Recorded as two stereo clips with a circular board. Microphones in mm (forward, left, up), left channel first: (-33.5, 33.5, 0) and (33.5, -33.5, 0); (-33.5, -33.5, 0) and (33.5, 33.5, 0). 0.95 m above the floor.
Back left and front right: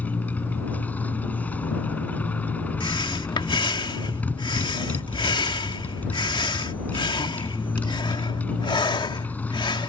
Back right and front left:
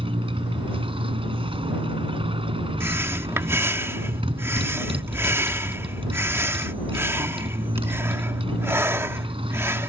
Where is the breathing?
110° left.